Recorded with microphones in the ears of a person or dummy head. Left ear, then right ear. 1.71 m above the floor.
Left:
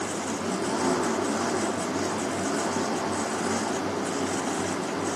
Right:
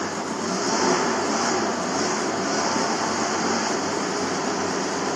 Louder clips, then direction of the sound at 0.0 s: Right 3 dB; 75° right (ahead or behind).